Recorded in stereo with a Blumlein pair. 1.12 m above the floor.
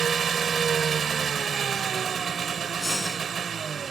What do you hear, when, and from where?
0.0 s an engine running: 20° right
2.8 s breathing: 10° left